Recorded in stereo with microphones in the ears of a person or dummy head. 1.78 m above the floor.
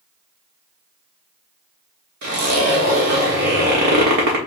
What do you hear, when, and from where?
2.2 s a zipper: 50° right (ahead or behind), 1.4 m